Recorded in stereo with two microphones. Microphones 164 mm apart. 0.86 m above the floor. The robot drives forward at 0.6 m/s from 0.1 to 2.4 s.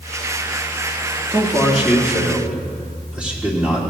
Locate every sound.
1.3 s a man speaking: 10° right (ahead or behind), 1.6 m; by 3.8 s 5° right (ahead or behind), 2 m